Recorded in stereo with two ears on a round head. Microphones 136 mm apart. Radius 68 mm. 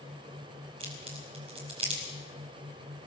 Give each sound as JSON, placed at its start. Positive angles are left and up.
{"t": 0.8, "sound": "a crack", "side_deg": -40, "distance_m": 5.5}